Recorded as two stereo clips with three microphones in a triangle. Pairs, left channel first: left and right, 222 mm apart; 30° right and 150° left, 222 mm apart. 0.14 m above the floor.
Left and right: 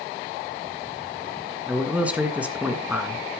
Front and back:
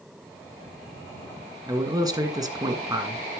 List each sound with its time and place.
1.7 s a man speaking: 165° right, 1.6 m